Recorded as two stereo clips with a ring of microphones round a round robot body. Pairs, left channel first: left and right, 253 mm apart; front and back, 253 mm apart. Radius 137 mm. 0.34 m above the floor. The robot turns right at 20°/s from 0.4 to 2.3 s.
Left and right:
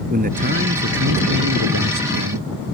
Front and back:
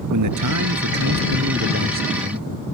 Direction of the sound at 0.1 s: 150° right.